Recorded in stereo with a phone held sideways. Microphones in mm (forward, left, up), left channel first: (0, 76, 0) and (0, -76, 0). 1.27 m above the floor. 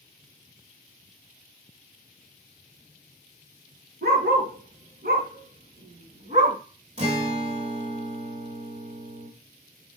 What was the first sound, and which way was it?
A dog barking, 75° right (ahead or behind).